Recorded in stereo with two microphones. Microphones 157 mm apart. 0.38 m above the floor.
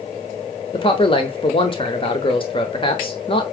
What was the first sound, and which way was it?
A man speaking, 35° left (ahead or behind).